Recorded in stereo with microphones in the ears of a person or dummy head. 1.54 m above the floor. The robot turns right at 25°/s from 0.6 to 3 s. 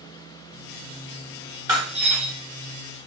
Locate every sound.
1.7 s breaking glass: 15° right (ahead or behind), 1.2 m; by 2.3 s 5° right (ahead or behind), 1.2 m